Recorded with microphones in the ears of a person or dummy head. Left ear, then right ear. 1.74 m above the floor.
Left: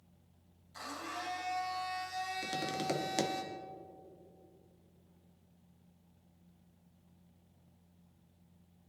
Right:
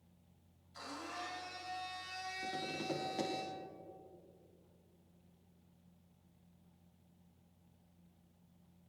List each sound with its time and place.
0.7 s a blender: 25° left (ahead or behind), 3 m
2.4 s tapping: 80° left, 1.1 m